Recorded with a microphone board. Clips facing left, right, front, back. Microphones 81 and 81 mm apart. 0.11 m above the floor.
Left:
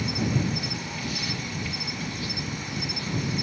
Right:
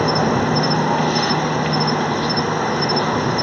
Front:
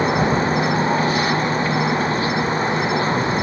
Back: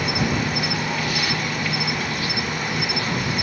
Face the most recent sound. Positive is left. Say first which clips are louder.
# right 11 dB, front 6 dB
turn(degrees=-60)